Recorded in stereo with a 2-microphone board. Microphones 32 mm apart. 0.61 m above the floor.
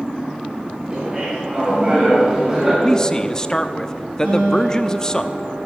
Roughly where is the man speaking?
Centre.